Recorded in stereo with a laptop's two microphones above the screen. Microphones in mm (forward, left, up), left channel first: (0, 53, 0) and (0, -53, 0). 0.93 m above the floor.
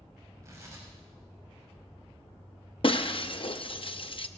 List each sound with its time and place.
0.4 s tearing paper: 30° right (ahead or behind), 5.5 m
2.8 s breaking glass: 55° left (ahead or behind), 0.5 m